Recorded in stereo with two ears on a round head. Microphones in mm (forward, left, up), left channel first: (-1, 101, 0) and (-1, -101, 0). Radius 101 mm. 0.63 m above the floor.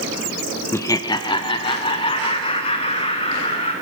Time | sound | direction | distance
0.7 | laughter | 10° left (ahead or behind) | 0.6 m